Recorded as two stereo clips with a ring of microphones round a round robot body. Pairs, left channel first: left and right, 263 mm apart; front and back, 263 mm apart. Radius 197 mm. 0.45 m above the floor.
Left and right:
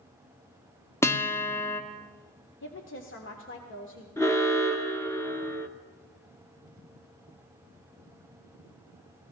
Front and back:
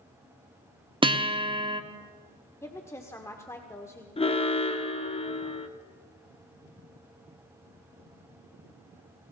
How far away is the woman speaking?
About 1.6 m.